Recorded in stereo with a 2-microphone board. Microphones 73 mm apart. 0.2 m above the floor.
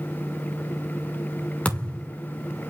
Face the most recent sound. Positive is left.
turn(degrees=20)  # may be behind; listen again after turning